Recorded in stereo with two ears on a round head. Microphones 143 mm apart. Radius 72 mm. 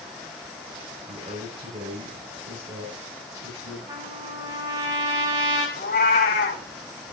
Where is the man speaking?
35° right (ahead or behind), 6 m.